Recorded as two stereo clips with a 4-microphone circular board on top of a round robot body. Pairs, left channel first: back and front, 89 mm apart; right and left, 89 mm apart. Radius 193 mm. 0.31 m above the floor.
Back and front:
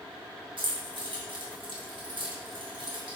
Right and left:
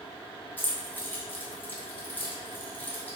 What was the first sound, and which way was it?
Keys jangling, 20° right.